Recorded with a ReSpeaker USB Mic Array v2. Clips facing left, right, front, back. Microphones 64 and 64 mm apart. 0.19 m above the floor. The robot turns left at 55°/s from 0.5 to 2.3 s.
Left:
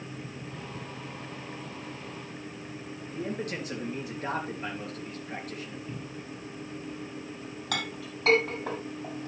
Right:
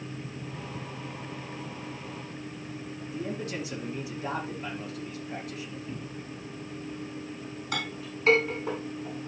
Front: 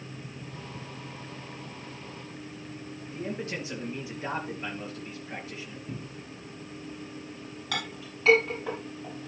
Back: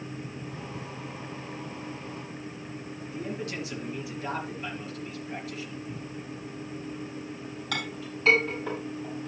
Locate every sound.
3.1 s a man speaking: 60° left, 3 m
5.9 s a cupboard door: 10° left, 1.9 m
7.7 s a clink: 90° left, 6 m